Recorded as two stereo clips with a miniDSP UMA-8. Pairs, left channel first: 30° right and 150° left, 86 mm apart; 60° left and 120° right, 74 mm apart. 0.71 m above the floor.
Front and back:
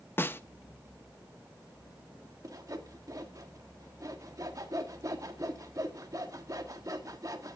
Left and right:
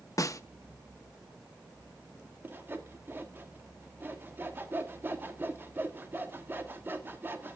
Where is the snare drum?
30° left, 0.6 m.